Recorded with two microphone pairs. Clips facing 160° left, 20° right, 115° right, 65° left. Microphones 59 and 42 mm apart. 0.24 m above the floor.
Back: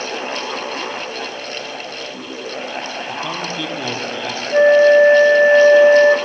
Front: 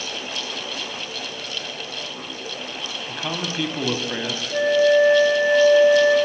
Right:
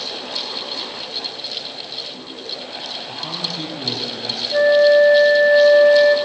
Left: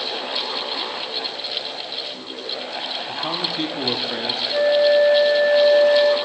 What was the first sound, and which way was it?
A man speaking, 70° left.